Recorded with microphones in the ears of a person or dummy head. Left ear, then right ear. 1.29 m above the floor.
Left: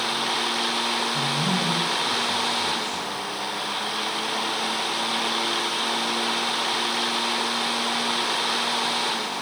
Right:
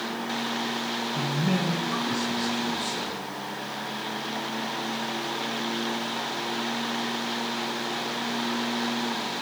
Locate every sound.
1.1 s a man speaking: centre (ahead or behind), 1.8 m; by 3.2 s 25° right (ahead or behind), 4 m